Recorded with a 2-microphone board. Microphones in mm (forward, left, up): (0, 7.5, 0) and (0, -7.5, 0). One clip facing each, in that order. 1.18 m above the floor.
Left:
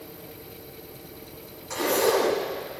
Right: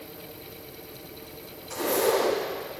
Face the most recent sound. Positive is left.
turn(degrees=45)  # may be behind; listen again after turning